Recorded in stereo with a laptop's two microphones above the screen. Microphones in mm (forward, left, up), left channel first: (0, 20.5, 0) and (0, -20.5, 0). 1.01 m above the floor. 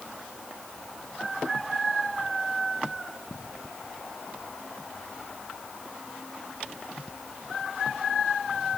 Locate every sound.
Only background noise.